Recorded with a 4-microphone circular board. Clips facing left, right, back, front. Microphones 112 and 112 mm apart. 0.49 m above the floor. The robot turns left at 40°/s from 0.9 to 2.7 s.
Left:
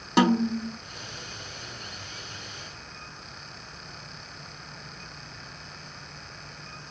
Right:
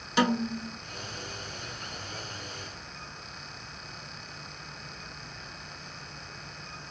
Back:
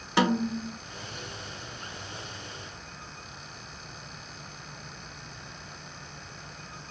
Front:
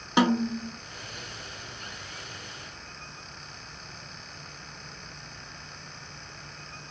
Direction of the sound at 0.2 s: 70° left.